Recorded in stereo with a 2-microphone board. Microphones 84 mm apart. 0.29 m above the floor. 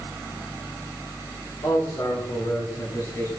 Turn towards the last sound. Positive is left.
turn(degrees=45)  # may be behind; listen again after turning